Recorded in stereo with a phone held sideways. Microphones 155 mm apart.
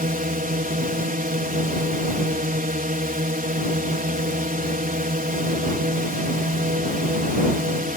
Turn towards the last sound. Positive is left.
turn(degrees=-65)  # may be behind; listen again after turning